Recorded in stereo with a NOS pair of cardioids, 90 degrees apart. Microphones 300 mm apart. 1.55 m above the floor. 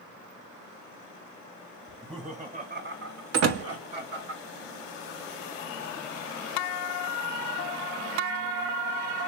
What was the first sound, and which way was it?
Laughter, 15° right.